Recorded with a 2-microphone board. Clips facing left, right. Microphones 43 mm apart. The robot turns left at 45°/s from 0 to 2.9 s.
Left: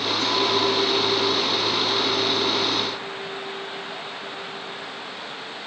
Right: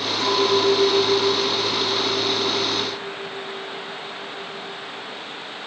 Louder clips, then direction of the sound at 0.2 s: Right 4 dB; 50° right.